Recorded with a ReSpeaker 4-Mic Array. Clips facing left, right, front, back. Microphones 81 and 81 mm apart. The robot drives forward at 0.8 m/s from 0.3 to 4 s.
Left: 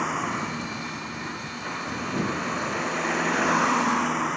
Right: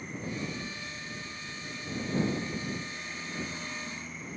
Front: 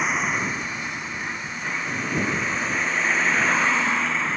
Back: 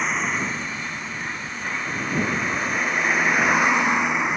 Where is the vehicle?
85° left; by 4.4 s 105° left.